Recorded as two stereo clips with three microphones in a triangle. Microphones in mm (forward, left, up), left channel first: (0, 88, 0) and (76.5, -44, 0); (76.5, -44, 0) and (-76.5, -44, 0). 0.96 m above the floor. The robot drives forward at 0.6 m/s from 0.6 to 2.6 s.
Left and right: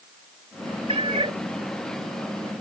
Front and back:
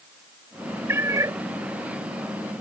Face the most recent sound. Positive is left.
turn(degrees=-130)